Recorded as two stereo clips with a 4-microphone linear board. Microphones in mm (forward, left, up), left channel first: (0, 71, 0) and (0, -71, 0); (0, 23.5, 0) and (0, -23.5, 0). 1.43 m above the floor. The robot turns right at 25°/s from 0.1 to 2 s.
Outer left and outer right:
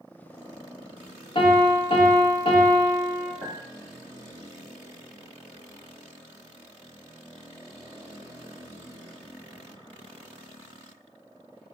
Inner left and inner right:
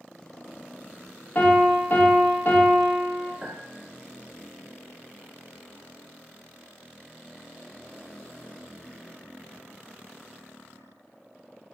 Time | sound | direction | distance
1.4 | a piano | 35° left (ahead or behind) | 0.9 m
3.4 | a clink | 20° right (ahead or behind) | 1.7 m